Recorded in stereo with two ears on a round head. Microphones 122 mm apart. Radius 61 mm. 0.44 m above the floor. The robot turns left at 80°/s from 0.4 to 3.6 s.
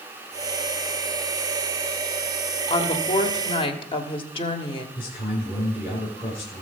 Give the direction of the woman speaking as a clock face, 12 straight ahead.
8 o'clock.